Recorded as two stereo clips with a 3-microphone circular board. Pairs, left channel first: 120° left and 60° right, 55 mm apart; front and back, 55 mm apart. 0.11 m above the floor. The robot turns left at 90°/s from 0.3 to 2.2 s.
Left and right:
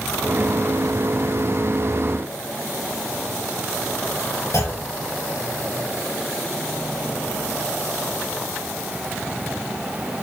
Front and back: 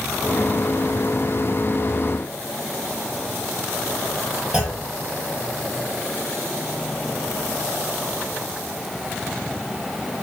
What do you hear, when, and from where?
4.5 s a clunk: 105° left, 2.5 m